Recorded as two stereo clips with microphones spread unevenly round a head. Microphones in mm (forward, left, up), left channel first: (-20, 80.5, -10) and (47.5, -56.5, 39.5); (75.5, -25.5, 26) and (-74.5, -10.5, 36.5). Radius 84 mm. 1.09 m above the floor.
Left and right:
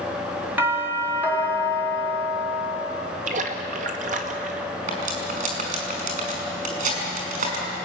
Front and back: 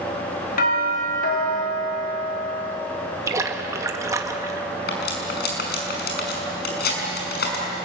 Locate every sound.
0.6 s a doorbell: 20° left, 3.5 m
3.3 s a splash: 115° right, 1.8 m
4.9 s cutlery clinking: 30° right, 6 m